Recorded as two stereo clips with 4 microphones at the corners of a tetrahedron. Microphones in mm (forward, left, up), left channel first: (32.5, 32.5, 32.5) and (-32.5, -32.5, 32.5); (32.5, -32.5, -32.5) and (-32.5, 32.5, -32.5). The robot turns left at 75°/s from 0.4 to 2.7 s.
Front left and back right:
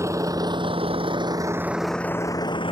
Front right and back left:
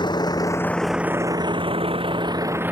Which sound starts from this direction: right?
A vehicle, at 0.0 s.